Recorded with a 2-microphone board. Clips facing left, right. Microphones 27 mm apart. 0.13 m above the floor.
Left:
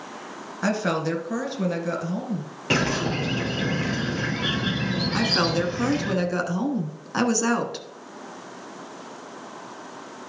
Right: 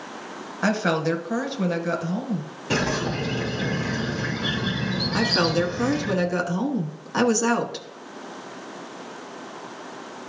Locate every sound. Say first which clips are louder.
0.6 s a woman speaking: right 2 dB; 15° right (ahead or behind), 1.4 m
2.7 s a bird: left 1 dB; 45° left (ahead or behind), 2.5 m
5.1 s a woman speaking: right 2 dB; 5° left (ahead or behind), 1.1 m